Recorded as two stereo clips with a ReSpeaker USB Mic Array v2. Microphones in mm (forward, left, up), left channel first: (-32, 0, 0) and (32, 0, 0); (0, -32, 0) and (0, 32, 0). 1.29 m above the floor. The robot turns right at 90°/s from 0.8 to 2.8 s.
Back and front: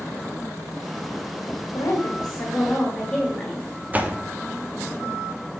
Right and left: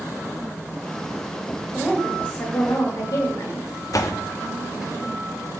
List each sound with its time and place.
1.7 s a woman speaking: 165° left, 1.9 m; by 3.7 s 100° right, 1.9 m
3.9 s a door slam: 65° right, 0.7 m